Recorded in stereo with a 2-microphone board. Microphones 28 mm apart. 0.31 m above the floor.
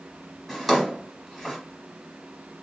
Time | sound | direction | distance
0.5 | a drawer | centre (ahead or behind) | 1.1 m